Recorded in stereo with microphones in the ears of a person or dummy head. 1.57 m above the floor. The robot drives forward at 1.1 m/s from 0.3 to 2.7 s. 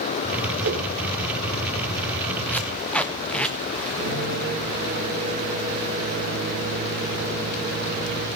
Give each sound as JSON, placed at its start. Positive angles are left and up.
{"t": 0.6, "sound": "a whoosh", "side_deg": -55, "distance_m": 2.0}
{"t": 2.5, "sound": "tape being pulled", "side_deg": 10, "distance_m": 0.8}
{"t": 4.0, "sound": "a microwave", "side_deg": -40, "distance_m": 3.5}